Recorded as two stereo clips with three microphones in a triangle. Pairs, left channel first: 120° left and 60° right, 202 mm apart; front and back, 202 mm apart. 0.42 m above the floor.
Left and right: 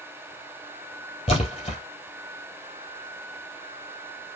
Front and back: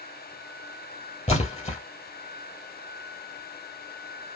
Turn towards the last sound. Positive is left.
turn(degrees=60)